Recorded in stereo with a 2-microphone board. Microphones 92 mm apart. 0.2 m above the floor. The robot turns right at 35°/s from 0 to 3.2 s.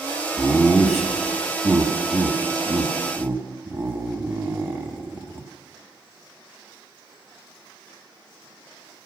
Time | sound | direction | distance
0.4 | laughter | 5° left (ahead or behind) | 1.1 m